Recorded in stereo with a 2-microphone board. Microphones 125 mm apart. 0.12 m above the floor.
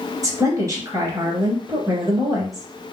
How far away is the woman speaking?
About 2 m.